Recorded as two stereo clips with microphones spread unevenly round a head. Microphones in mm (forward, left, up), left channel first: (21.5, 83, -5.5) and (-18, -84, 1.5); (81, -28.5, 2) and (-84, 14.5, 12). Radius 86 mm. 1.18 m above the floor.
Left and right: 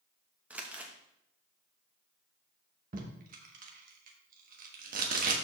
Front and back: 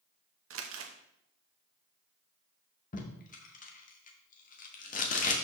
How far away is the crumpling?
About 1.0 m.